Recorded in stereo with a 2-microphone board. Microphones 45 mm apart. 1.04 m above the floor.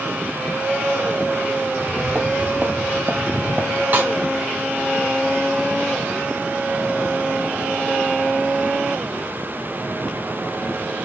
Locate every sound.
1.7 s footsteps: 35° right (ahead or behind), 1.8 m
3.9 s a snare drum: 45° right (ahead or behind), 1.7 m